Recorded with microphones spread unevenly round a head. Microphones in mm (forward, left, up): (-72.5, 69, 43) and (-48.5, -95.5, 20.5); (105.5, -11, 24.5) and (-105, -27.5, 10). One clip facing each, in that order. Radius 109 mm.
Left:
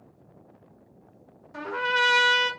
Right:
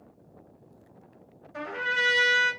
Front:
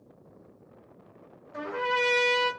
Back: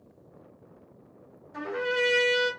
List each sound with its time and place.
1.5 s a trumpet: 90° left, 1.0 m